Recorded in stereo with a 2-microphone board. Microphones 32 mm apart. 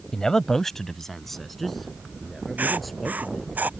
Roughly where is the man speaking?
Centre.